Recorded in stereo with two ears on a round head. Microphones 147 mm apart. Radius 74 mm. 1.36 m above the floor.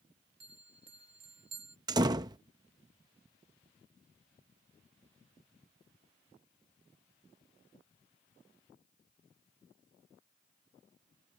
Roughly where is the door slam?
Right.